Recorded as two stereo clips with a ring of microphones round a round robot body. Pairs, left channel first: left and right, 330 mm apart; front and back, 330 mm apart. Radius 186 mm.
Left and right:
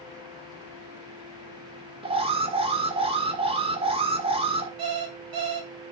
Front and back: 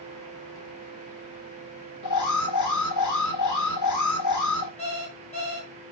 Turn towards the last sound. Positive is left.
turn(degrees=-75)